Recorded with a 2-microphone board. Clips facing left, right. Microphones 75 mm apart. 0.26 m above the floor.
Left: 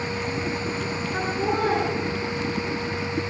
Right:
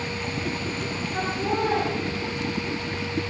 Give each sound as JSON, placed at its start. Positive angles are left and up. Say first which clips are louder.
{"t": 1.1, "sound": "laughter", "louder": "left 1 dB", "side_deg": 55, "distance_m": 3.5}